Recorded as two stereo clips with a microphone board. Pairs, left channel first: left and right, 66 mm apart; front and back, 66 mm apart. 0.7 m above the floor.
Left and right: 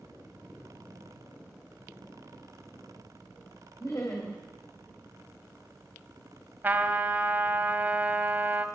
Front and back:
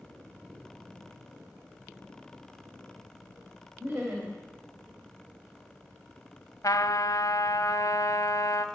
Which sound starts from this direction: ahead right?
A trumpet, at 6.6 s.